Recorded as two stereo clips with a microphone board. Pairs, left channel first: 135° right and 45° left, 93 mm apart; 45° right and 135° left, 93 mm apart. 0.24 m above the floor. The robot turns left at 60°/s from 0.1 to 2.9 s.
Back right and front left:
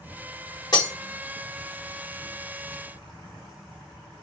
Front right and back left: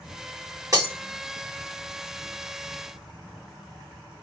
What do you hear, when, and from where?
0.7 s breaking glass: 175° right, 1.2 m; by 0.9 s 170° left, 1.2 m